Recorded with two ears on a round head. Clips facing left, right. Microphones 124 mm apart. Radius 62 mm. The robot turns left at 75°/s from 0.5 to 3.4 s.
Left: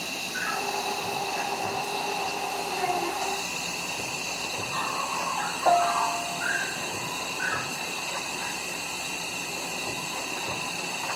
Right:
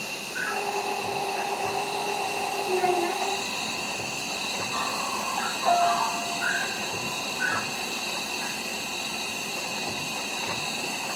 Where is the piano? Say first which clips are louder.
Even; 80° left, 1.8 m.